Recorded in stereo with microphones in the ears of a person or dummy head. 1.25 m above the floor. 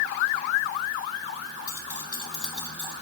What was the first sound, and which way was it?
Keys jangling, 20° left (ahead or behind).